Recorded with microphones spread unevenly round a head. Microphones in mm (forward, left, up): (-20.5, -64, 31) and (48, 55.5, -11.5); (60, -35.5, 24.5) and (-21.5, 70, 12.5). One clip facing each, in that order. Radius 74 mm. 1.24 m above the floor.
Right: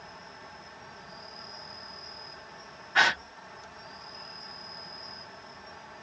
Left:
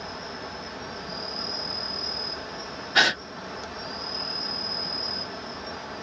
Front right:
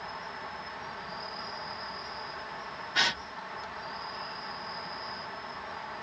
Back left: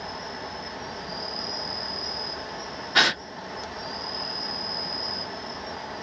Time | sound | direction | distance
0.0 | an insect | 80° left | ?
3.0 | a gasp | 110° left | ?